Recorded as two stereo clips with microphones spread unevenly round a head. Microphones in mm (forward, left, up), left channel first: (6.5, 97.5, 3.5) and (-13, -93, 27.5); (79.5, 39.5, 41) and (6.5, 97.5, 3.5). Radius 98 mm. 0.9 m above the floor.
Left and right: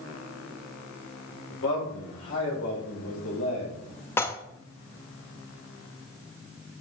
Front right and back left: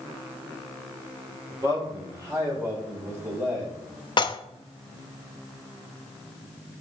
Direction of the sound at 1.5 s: 90° left.